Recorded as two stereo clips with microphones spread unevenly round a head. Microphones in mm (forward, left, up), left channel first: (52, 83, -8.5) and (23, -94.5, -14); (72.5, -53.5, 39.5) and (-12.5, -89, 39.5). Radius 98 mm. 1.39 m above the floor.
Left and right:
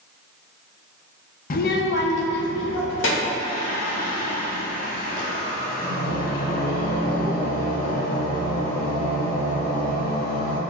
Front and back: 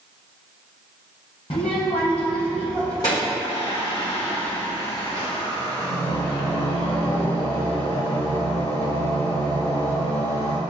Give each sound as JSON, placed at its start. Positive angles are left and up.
{"t": 1.5, "sound": "a child speaking", "azimuth_deg": 55, "distance_m": 0.5}
{"t": 3.4, "sound": "singing", "azimuth_deg": 40, "distance_m": 0.9}